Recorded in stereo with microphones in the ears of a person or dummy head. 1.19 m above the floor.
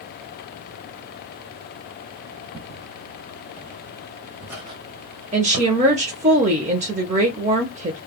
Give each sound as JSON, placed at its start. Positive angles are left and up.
{"t": 2.5, "sound": "footsteps", "side_deg": 0, "distance_m": 1.4}
{"t": 5.3, "sound": "a woman speaking", "side_deg": -30, "distance_m": 0.7}